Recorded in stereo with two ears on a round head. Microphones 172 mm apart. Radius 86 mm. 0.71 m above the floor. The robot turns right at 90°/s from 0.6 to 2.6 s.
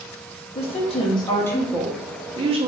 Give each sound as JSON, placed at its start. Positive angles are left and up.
{"t": 0.6, "sound": "a woman speaking", "azimuth_deg": 80, "distance_m": 0.6}